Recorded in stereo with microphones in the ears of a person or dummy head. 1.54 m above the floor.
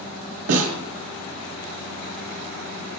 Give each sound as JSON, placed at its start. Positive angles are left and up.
{"t": 0.5, "sound": "a snare drum", "side_deg": -70, "distance_m": 2.5}